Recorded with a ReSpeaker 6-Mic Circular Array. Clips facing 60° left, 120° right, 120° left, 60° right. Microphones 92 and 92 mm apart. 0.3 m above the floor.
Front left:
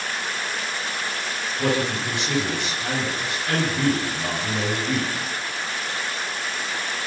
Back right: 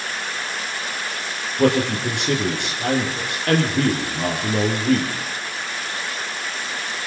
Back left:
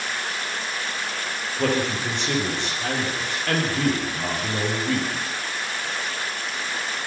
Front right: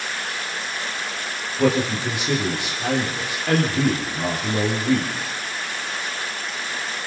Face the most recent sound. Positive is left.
turn(degrees=-140)